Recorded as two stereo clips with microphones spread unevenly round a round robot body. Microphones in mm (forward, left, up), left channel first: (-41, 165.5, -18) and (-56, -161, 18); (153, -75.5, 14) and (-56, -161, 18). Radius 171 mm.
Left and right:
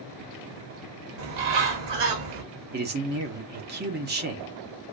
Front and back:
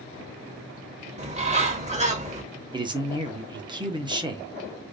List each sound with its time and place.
1.2 s a bird: 95° right, 1.4 m
2.7 s a man speaking: 115° right, 0.9 m